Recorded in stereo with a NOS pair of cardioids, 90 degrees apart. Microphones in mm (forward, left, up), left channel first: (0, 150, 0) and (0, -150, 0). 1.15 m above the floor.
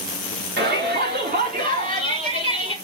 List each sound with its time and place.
0.6 s a shout: 35° right, 4 m; by 2.8 s 20° right, 3 m